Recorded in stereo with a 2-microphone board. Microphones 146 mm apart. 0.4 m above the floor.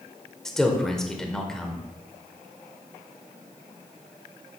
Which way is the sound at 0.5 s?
5° left (ahead or behind).